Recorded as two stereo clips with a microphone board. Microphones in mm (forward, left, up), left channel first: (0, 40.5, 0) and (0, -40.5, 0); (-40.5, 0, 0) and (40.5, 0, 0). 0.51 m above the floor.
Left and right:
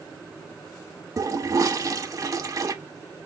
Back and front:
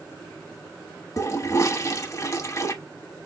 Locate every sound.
1.2 s a toilet flushing: 135° right, 0.7 m